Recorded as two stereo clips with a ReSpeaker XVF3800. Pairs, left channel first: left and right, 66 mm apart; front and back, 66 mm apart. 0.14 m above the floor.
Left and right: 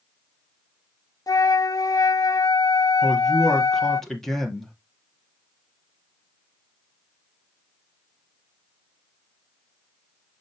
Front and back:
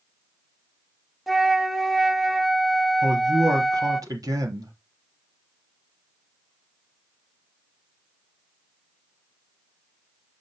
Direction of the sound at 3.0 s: 175° left.